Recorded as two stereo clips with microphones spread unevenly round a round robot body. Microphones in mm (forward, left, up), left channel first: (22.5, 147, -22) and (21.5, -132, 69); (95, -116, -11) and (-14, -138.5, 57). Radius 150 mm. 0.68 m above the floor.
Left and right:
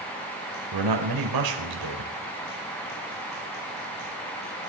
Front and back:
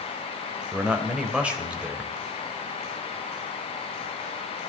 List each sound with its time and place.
0.7 s a man speaking: 80° right, 3.5 m